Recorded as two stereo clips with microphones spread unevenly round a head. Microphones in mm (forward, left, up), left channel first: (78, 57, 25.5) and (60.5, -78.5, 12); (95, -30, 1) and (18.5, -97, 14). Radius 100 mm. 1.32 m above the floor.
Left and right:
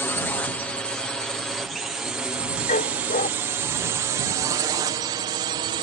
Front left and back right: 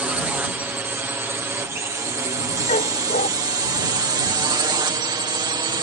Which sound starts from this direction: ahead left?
A dog barking, at 2.7 s.